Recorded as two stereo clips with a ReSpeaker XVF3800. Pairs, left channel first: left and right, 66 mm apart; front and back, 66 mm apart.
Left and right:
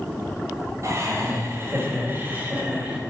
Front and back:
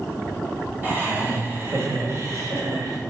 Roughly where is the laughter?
Behind right.